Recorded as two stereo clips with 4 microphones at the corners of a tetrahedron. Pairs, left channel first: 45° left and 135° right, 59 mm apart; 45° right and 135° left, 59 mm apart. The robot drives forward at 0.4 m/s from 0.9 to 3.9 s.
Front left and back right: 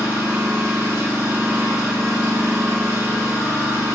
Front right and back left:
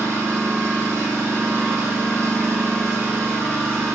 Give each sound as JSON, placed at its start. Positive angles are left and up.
{"t": 0.0, "sound": "an engine running", "azimuth_deg": 175, "distance_m": 4.0}